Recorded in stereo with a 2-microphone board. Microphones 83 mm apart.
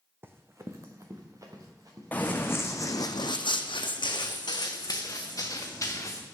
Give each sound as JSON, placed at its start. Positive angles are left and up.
{"t": 0.2, "sound": "running footsteps", "side_deg": -25, "distance_m": 0.7}
{"t": 2.1, "sound": "running footsteps", "side_deg": 20, "distance_m": 1.0}